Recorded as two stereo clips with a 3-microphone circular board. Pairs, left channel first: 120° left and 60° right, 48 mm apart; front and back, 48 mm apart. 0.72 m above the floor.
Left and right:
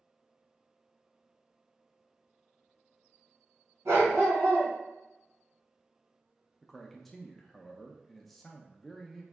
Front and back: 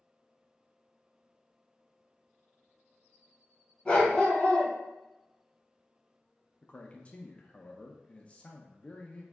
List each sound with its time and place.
3.9 s a dog barking: 70° right, 1.7 m
6.6 s a man speaking: 40° left, 0.5 m